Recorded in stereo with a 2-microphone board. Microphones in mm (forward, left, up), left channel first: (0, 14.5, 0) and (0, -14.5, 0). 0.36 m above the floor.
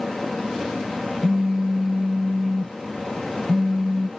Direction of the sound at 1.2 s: 30° right (ahead or behind).